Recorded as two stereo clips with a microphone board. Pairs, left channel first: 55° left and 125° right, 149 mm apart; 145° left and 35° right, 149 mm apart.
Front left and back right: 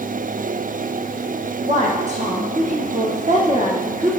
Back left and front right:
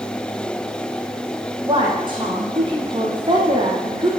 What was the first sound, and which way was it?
A woman speaking, 90° right.